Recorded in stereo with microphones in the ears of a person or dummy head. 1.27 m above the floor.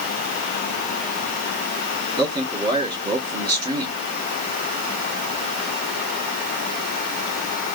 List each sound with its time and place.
2.2 s a man speaking: 25° right (ahead or behind), 3.5 m